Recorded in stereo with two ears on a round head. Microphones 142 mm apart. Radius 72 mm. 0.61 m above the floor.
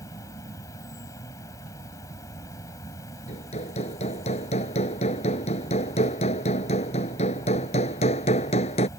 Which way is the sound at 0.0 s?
20° left (ahead or behind).